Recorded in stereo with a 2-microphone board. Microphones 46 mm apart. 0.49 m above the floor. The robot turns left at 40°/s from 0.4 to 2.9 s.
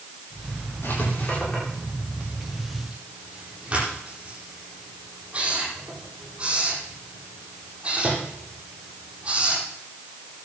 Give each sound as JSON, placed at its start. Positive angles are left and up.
{"t": 0.8, "sound": "writing", "side_deg": 55, "distance_m": 10.0}